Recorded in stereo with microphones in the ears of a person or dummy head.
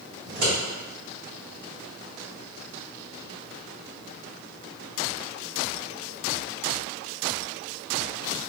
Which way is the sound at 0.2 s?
55° right (ahead or behind).